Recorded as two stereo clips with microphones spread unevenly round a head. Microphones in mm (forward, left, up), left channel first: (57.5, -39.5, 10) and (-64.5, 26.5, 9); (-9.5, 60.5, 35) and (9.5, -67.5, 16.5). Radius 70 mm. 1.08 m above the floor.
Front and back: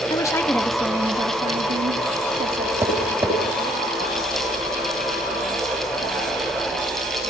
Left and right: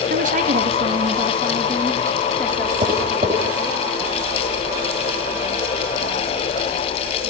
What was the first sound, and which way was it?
A woman speaking, 90° right.